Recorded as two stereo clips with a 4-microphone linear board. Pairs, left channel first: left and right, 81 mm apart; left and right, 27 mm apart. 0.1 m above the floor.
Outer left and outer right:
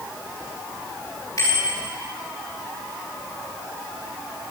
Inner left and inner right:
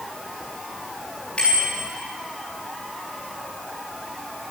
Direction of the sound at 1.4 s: 40° left (ahead or behind).